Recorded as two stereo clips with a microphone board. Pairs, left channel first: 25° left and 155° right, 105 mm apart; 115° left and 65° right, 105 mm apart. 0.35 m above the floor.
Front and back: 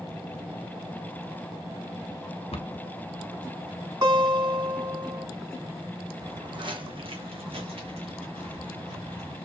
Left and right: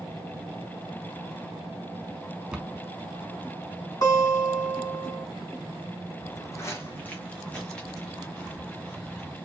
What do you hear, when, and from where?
2.5 s a cupboard door: 15° left, 1.0 m
4.0 s a guitar: 160° left, 4 m
6.2 s footsteps: 160° left, 1.0 m; by 9.4 s 155° right, 2.5 m